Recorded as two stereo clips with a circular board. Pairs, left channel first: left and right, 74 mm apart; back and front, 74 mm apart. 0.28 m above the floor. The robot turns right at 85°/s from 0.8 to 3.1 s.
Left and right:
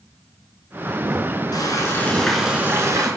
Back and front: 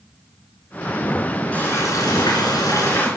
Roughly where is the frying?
Left.